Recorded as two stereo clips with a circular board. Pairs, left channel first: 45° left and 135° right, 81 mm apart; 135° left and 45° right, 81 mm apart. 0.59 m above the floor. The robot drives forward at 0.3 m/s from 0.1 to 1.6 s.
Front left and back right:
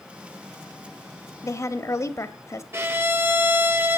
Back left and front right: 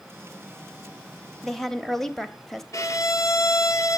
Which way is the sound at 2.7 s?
175° left.